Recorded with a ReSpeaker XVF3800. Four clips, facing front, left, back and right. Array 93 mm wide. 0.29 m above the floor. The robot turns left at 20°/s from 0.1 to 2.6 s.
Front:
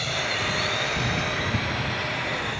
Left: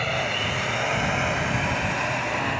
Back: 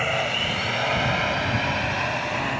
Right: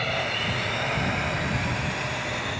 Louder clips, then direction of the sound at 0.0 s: Left 2 dB, back 3 dB; 170° left.